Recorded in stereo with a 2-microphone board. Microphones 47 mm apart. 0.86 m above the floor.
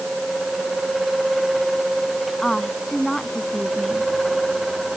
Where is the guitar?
No guitar in this recording.